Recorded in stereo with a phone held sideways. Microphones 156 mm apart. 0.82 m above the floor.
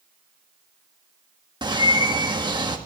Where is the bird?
30° right (ahead or behind), 1.5 m.